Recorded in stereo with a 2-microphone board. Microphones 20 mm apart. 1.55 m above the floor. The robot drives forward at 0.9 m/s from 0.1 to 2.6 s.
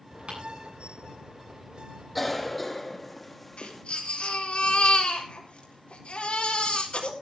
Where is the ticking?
70° right (ahead or behind), 10 m.